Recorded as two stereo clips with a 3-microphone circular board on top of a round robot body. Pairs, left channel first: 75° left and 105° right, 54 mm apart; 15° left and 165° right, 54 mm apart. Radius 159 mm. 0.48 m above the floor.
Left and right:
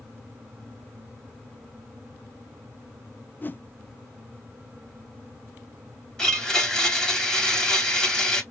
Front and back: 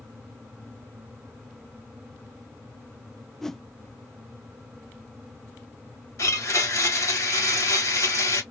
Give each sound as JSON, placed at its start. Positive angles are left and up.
{"t": 3.4, "sound": "a whoosh", "azimuth_deg": 90, "distance_m": 0.6}
{"t": 6.2, "sound": "a blender", "azimuth_deg": 0, "distance_m": 3.0}